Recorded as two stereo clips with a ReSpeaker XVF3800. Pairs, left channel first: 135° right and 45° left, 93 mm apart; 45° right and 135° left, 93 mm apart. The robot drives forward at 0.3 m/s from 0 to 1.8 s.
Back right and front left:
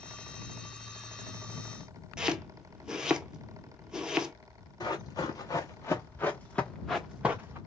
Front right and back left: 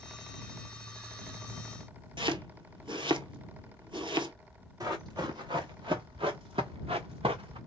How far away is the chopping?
About 0.6 m.